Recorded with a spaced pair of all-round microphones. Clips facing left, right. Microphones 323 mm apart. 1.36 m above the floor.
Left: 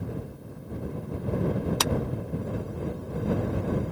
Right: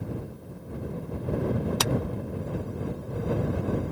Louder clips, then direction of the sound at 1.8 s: Even; centre (ahead or behind).